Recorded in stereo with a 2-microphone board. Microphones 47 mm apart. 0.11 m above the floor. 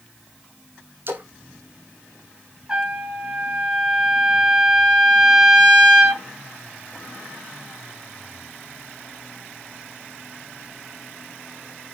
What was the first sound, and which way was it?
A splash, 50° right (ahead or behind).